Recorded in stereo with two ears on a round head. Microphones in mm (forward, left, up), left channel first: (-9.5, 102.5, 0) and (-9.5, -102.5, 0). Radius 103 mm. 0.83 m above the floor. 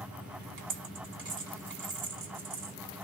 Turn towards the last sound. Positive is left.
turn(degrees=-55)  # may be behind; listen again after turning